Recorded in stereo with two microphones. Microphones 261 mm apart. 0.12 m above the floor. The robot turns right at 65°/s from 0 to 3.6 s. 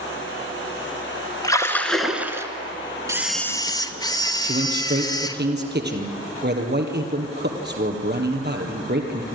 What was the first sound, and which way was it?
A splash, 15° left (ahead or behind).